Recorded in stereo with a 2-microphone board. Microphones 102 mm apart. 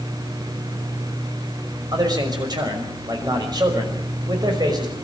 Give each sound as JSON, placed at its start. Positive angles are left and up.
{"t": 1.9, "sound": "a man speaking", "side_deg": -40, "distance_m": 5.5}